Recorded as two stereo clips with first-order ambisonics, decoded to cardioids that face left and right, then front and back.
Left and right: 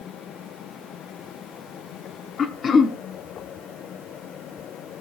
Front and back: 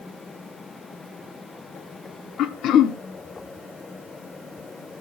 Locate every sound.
2.4 s throat clearing: 30° left, 0.8 m